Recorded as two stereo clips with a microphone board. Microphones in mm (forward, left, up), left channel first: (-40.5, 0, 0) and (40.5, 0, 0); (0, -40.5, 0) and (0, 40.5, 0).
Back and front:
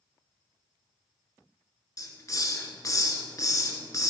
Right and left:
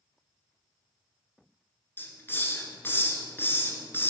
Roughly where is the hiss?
Behind right.